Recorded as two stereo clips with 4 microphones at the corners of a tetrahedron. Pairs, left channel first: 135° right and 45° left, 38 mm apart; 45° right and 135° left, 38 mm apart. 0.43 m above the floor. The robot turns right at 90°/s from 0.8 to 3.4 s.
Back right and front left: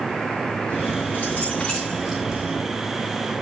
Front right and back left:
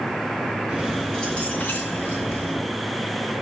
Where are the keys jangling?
155° right, 2 m; by 2.6 s 10° left, 2 m.